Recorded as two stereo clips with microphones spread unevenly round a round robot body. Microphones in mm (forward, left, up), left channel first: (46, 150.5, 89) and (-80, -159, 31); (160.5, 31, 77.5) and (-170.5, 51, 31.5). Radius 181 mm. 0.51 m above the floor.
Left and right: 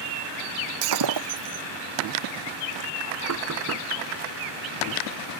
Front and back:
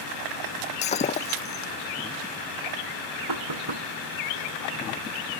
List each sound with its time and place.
0.8 s breaking glass: 75° right
3.3 s knocking: 160° right